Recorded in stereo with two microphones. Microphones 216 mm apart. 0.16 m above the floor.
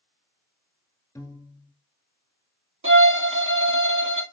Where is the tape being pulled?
No tape being pulled in this recording.